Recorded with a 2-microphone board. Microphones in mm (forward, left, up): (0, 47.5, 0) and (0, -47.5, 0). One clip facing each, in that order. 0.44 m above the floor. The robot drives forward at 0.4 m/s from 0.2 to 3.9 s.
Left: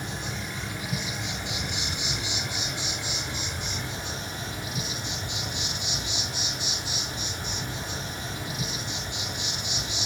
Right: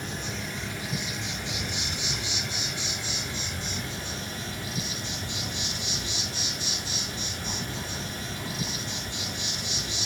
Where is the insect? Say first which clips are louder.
Even; 15° left (ahead or behind), 6 m; by 10.1 s 20° left (ahead or behind), 4.5 m.